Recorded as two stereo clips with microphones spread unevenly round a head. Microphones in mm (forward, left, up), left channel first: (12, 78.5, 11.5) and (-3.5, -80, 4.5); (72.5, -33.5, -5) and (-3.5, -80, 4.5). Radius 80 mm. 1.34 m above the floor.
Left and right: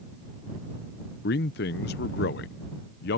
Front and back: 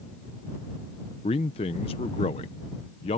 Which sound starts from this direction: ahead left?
A man speaking, at 1.2 s.